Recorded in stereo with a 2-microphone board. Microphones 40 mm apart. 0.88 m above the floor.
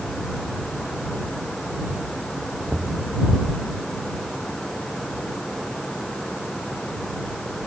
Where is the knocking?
40° right (ahead or behind).